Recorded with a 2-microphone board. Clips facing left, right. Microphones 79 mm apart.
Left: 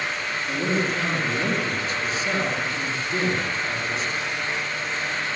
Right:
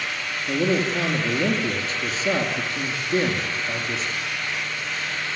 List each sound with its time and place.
0.5 s a man speaking: 40° right (ahead or behind), 5.5 m